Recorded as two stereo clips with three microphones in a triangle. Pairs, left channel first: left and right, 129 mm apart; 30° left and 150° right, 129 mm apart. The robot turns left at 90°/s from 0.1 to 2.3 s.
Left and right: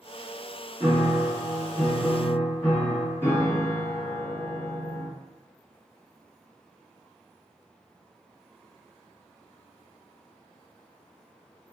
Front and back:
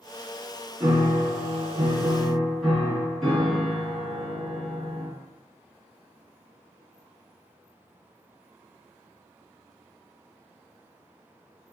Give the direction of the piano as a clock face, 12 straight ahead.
4 o'clock.